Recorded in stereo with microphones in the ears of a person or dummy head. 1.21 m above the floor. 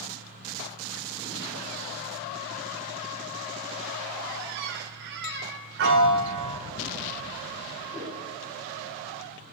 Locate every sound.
4.3 s a squeak: 55° right (ahead or behind), 0.7 m
5.8 s a piano: 50° right (ahead or behind), 0.7 m
7.9 s a whoosh: centre (ahead or behind), 3 m